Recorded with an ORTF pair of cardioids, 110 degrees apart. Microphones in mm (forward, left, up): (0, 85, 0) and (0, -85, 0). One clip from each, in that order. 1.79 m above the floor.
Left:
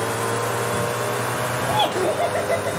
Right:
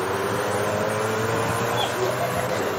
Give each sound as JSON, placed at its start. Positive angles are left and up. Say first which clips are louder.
{"t": 1.7, "sound": "laughter", "louder": "left 3 dB", "azimuth_deg": 50, "distance_m": 1.6}